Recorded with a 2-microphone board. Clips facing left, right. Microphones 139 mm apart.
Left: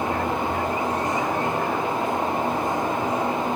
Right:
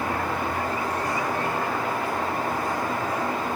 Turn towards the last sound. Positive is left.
No sound to turn to.